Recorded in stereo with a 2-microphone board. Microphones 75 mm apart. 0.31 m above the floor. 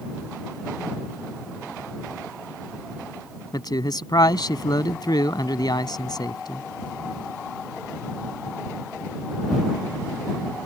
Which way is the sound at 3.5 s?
65° left (ahead or behind).